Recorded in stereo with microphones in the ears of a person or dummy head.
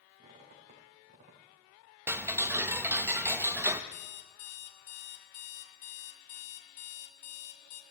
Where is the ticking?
15° right (ahead or behind), 0.8 m.